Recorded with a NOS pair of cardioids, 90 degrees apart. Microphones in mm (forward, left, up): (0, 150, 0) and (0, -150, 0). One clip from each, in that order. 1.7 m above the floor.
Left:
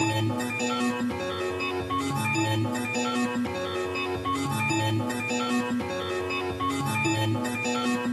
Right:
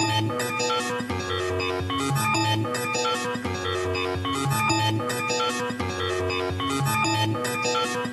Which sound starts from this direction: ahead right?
A machine running, at 0.0 s.